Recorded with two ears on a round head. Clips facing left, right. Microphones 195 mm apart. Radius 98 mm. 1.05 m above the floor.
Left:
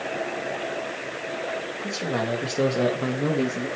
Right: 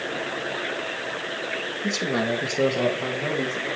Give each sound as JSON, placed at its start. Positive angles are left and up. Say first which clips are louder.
{"t": 1.8, "sound": "a man speaking", "louder": "right 3 dB", "side_deg": -20, "distance_m": 2.0}